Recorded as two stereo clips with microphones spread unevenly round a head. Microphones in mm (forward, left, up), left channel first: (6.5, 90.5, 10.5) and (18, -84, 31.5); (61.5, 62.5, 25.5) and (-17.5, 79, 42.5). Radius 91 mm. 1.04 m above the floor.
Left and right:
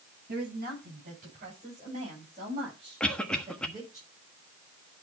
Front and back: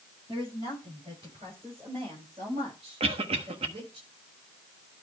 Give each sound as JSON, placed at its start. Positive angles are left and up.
{"t": 0.3, "sound": "a woman speaking", "azimuth_deg": -130, "distance_m": 8.0}
{"t": 3.0, "sound": "a cough", "azimuth_deg": 180, "distance_m": 1.3}